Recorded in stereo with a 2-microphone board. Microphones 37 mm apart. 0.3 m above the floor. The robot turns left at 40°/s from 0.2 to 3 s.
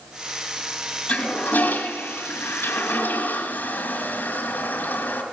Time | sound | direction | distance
1.1 | a toilet flushing | 40° left (ahead or behind) | 2.0 m